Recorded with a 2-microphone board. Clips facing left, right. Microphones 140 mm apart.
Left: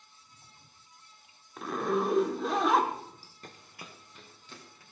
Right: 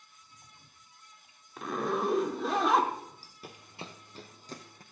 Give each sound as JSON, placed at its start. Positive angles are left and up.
{"t": 1.6, "sound": "a zipper", "side_deg": 0, "distance_m": 1.3}
{"t": 3.4, "sound": "running footsteps", "side_deg": -5, "distance_m": 0.8}